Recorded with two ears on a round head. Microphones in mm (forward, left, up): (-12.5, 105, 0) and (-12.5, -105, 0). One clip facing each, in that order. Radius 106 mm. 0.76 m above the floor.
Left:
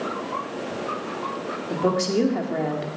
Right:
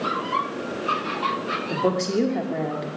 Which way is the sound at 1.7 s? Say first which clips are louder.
Left 1 dB; 5° left (ahead or behind).